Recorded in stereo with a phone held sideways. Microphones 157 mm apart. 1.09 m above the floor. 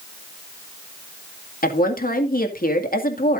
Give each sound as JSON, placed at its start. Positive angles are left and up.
{"t": 1.6, "sound": "a woman speaking", "side_deg": 65, "distance_m": 2.0}